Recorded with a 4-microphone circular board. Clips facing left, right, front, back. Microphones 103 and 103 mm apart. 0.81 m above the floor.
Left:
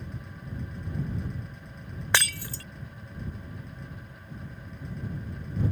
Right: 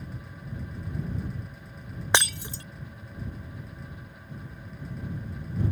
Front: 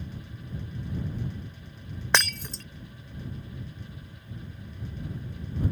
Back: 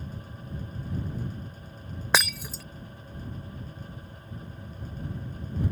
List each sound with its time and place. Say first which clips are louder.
2.1 s breaking glass: right 2 dB, even; 110° right